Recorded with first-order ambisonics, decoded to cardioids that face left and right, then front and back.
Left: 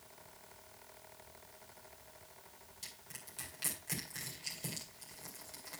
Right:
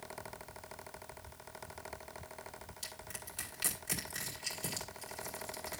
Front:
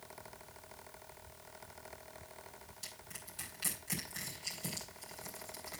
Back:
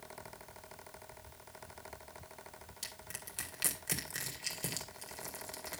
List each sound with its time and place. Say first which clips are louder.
2.8 s crushing: right 3 dB, back 4 dB; 170° right, 2.5 m